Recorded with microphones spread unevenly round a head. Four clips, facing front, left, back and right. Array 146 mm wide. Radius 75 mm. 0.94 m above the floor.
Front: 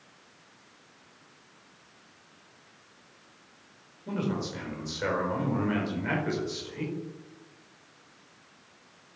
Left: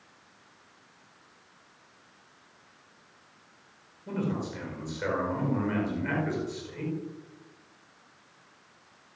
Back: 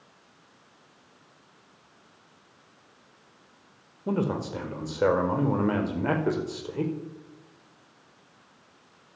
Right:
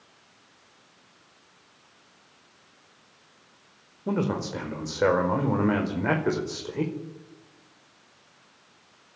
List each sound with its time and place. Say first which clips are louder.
4.1 s a man speaking: right 5 dB, back 4 dB; 130° right, 4.5 m